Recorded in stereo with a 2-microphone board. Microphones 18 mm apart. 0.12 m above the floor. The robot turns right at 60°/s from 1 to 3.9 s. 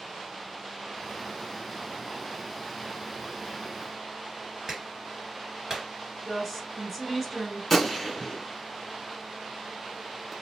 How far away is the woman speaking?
About 1.3 m.